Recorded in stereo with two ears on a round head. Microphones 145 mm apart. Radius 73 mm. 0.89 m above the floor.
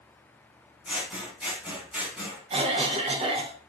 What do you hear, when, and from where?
0.8 s scissors: 5° right (ahead or behind), 1.4 m
2.5 s a cough: 35° right (ahead or behind), 0.8 m